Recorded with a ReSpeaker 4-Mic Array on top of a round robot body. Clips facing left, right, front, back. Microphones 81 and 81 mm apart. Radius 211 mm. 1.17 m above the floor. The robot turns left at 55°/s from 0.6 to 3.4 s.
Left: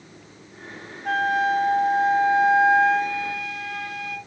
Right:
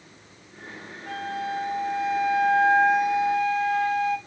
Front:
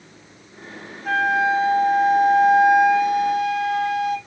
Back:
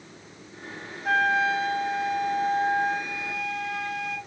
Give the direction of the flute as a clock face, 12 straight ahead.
9 o'clock.